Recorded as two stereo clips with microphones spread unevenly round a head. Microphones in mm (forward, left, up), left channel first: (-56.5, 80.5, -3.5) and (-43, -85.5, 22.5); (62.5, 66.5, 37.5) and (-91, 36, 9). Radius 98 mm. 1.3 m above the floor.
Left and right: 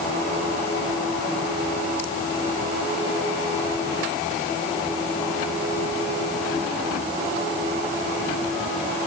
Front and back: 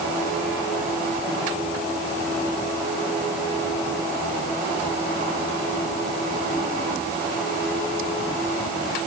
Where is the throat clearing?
I don't hear throat clearing.